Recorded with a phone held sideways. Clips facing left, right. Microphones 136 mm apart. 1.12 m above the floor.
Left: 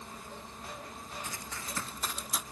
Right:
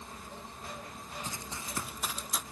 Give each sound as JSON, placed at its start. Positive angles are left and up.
{"t": 1.2, "sound": "running footsteps", "side_deg": -25, "distance_m": 1.4}